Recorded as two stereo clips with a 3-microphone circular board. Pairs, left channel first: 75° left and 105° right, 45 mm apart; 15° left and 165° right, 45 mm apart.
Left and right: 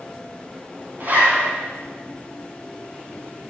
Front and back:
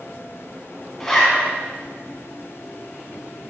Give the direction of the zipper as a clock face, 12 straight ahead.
2 o'clock.